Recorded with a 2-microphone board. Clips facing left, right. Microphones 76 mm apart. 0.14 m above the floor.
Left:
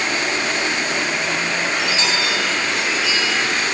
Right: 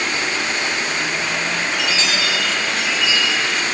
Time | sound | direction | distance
1.7 | a chime | 35° left (ahead or behind) | 5.5 m